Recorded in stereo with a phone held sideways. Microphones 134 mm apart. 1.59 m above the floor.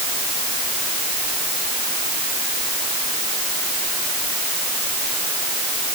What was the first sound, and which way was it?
Only background noise.